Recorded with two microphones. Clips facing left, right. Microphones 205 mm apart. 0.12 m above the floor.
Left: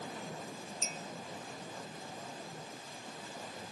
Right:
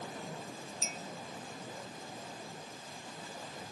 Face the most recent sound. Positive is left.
turn(degrees=-5)  # may be behind; listen again after turning